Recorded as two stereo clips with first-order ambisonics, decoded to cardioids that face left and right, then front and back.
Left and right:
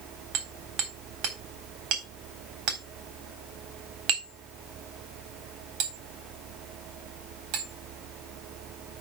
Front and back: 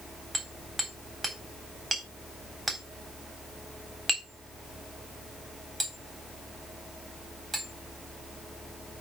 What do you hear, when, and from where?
0.3 s hammering: 105° right, 3.5 m